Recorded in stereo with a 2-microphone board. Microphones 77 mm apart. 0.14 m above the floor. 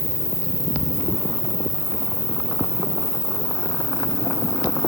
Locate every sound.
0.0 s an insect: centre (ahead or behind), 3.5 m